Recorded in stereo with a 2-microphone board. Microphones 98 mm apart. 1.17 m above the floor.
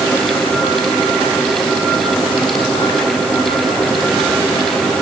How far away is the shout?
No shout in this recording.